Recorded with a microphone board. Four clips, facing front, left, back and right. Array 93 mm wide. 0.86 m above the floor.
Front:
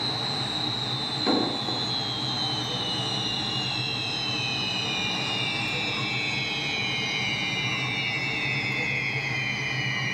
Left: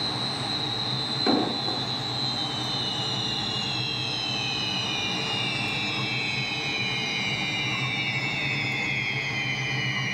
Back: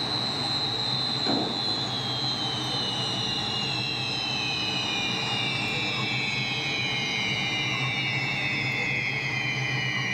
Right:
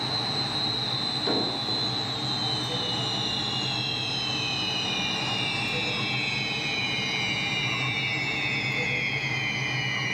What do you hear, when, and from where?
1.3 s an explosion: 70° left, 2.5 m